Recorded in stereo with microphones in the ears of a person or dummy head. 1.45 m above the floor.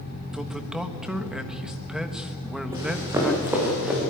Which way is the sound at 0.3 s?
5° right (ahead or behind).